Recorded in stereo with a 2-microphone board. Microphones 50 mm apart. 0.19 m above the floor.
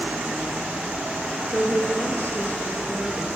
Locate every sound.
1.5 s a woman speaking: 30° left (ahead or behind), 3 m; by 3.3 s 50° left (ahead or behind), 5 m